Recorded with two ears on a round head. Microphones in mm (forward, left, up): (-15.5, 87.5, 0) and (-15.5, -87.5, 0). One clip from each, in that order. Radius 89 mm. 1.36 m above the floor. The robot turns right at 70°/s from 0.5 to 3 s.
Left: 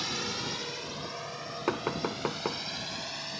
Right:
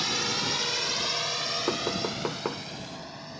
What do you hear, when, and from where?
0.0 s a drone: 20° right (ahead or behind); by 3.4 s 55° left (ahead or behind)
1.7 s knocking: 60° left (ahead or behind); by 2.6 s 5° right (ahead or behind)